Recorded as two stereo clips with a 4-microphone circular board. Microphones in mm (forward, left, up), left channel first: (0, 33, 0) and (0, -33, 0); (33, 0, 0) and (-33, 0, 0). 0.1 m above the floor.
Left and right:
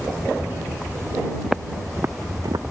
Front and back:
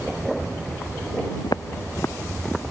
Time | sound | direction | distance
1.4 | footsteps | straight ahead | ?